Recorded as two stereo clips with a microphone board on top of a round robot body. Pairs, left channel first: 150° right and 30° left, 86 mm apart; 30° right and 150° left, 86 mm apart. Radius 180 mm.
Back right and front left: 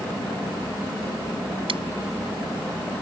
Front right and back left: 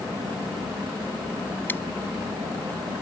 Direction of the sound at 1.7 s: 40° left.